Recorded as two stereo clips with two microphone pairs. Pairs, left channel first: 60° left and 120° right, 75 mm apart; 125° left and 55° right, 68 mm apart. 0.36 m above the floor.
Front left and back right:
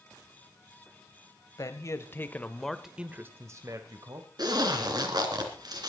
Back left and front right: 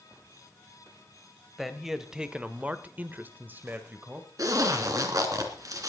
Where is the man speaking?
30° left, 1.9 m; by 4.3 s 120° right, 2 m.